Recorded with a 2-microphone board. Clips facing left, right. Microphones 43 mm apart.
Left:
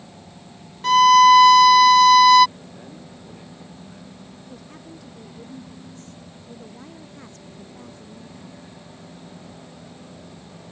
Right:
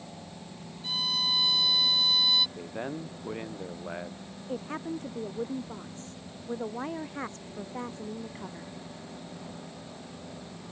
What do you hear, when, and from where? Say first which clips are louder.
0.8 s a violin: left 21 dB; 70° left (ahead or behind)
2.6 s a man speaking: right 5 dB; 50° right (ahead or behind)
4.5 s a woman speaking: right 11 dB; 40° right (ahead or behind)